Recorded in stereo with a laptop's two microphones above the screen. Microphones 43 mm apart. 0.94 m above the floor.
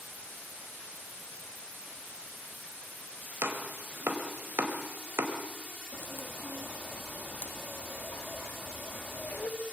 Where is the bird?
45° left (ahead or behind), 1.4 m.